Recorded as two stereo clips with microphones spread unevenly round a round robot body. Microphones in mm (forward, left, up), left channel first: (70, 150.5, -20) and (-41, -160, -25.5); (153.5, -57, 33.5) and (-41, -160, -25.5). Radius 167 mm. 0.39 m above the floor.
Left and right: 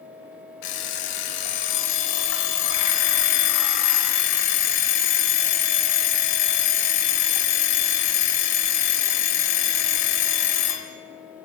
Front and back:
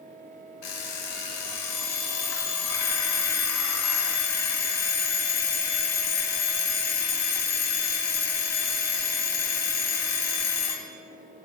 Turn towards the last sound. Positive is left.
turn(degrees=60)